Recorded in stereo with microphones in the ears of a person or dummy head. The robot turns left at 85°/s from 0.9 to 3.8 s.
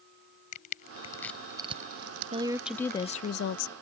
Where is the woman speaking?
145° right; by 3.7 s 95° left.